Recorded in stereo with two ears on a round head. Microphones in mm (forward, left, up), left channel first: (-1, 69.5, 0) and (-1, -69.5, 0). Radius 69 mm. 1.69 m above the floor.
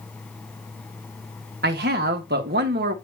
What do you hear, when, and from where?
1.6 s a man speaking: 70° right (ahead or behind), 1.6 m